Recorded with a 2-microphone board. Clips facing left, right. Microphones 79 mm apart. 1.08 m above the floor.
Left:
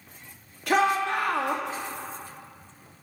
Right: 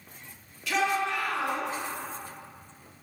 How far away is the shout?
About 1.8 m.